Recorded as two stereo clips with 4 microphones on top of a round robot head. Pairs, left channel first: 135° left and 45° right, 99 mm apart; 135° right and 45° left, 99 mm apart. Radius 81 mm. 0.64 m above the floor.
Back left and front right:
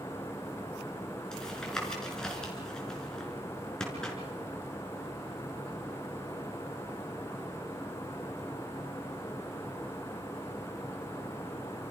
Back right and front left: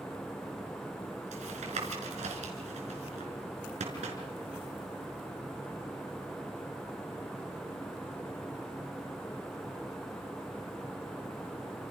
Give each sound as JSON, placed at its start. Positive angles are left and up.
{"t": 1.3, "sound": "tapping", "azimuth_deg": 50, "distance_m": 5.0}